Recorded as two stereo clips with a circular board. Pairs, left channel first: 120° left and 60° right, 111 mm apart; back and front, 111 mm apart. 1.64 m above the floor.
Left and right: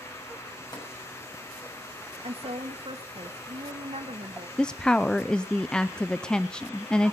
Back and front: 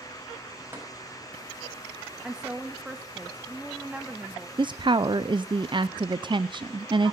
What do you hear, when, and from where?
0.7 s tapping: 70° left, 6.5 m
2.2 s a woman speaking: 85° right, 2 m
4.6 s a woman speaking: 40° left, 0.6 m